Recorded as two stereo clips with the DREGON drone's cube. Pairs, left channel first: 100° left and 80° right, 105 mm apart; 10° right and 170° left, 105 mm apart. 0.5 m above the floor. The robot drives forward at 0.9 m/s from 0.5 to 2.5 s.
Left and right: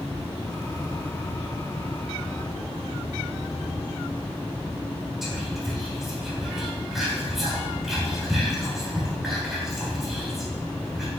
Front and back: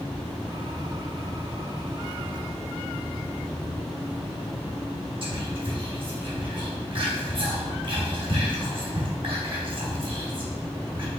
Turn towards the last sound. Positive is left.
turn(degrees=-165)